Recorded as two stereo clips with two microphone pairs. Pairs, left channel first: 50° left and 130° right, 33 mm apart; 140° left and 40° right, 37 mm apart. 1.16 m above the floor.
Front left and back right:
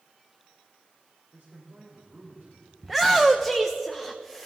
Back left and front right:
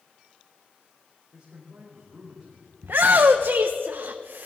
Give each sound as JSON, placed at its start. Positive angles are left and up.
{"t": 1.3, "sound": "a man speaking", "azimuth_deg": -115, "distance_m": 4.5}
{"t": 2.8, "sound": "a shout", "azimuth_deg": -50, "distance_m": 0.6}